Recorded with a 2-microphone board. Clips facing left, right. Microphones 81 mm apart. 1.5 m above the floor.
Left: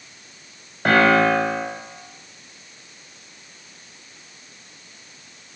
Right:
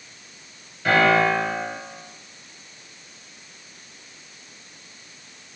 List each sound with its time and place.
0.8 s a piano: 55° left (ahead or behind), 0.7 m